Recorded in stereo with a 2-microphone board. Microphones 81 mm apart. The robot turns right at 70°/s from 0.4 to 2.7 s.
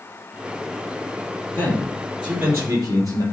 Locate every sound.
1.5 s a man speaking: 145° left, 4 m; by 3.2 s 135° right, 4 m